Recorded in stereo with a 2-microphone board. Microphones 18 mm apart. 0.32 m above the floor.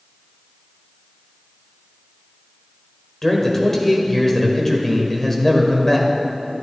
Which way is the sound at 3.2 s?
20° left (ahead or behind).